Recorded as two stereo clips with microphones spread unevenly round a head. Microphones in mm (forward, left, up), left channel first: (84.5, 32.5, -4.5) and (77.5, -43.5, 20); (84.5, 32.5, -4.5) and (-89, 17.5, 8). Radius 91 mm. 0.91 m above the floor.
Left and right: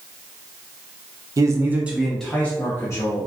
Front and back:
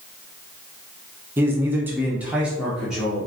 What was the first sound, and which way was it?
A man speaking, 100° right.